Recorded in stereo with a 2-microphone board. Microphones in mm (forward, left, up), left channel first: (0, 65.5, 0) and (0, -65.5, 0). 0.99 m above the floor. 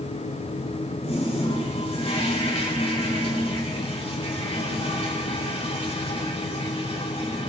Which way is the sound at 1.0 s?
45° left (ahead or behind).